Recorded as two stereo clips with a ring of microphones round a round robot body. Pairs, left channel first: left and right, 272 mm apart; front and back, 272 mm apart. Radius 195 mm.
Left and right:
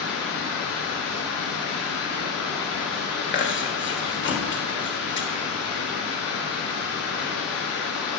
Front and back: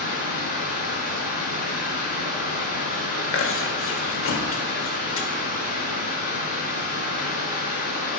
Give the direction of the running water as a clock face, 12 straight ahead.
10 o'clock.